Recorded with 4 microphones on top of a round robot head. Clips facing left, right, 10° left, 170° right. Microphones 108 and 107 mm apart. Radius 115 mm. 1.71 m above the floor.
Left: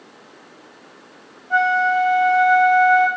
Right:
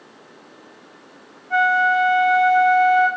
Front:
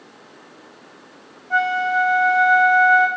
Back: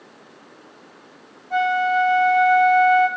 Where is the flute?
25° left, 2 m.